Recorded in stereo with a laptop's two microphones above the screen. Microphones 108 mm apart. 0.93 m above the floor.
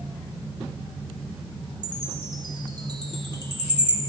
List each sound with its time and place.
1.8 s a chime: 45° right (ahead or behind), 1.1 m